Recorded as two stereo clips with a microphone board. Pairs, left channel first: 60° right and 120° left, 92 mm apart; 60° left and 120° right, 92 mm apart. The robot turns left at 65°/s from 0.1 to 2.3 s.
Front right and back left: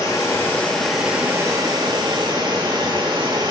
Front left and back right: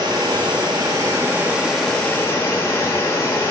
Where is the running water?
100° right, 0.9 m; by 3.5 s 120° left, 0.9 m.